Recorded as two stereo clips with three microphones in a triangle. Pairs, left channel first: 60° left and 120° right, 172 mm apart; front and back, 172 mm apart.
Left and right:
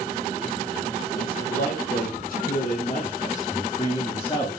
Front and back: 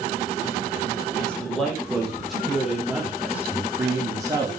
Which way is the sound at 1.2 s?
85° left.